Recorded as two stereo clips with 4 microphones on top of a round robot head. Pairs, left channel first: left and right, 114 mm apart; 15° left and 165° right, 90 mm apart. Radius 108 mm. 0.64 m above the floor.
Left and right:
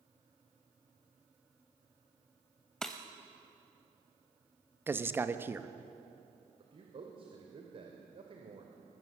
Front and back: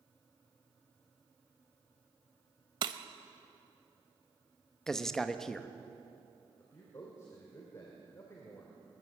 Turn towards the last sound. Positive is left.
turn(degrees=-50)